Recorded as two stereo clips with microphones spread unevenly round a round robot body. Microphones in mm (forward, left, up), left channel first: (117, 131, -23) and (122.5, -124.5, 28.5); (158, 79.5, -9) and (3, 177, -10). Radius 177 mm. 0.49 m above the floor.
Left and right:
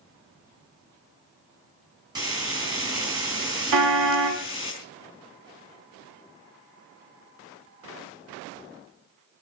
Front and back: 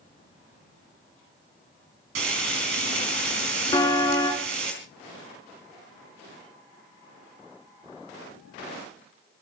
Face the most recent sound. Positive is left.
turn(degrees=-110)